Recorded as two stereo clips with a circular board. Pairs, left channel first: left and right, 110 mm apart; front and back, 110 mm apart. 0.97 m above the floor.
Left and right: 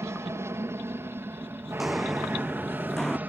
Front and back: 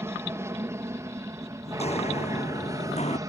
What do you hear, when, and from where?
0.0 s an aircraft: 135° right; by 3.3 s 155° right
1.7 s footsteps: 5° right; by 3.2 s 5° left